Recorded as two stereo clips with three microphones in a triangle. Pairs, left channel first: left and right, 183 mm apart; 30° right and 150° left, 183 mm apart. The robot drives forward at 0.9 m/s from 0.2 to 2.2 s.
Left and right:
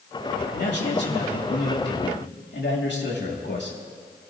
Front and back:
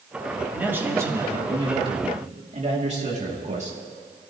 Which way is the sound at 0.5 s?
70° left.